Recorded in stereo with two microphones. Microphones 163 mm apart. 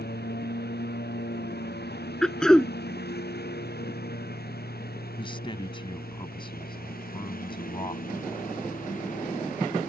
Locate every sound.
0.0 s a lawn mower: 80° left; by 9.9 s 55° left (ahead or behind)
2.2 s throat clearing: 5° left (ahead or behind)
5.2 s a man speaking: 30° left (ahead or behind)